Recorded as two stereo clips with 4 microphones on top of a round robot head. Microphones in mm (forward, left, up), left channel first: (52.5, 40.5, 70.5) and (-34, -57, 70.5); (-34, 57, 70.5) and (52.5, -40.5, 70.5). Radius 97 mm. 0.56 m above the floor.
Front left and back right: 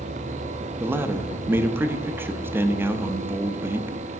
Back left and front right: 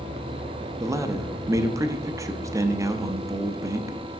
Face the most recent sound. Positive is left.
turn(degrees=-80)